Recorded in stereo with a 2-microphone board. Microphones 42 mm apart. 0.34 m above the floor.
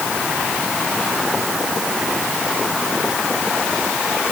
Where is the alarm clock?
I don't hear an alarm clock.